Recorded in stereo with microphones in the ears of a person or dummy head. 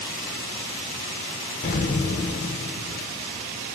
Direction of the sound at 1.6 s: 40° left (ahead or behind).